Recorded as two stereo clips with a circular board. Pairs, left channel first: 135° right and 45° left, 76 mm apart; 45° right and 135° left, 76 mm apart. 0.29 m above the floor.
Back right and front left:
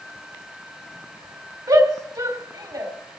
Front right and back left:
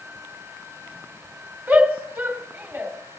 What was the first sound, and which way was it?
A shout, 65° left.